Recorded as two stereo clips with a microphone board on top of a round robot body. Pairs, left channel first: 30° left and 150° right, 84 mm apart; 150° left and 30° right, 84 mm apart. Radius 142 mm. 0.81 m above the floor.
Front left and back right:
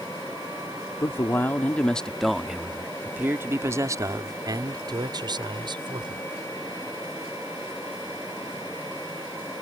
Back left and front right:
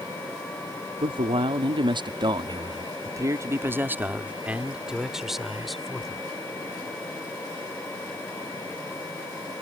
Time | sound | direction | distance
1.0 | a man speaking | 30° right | ?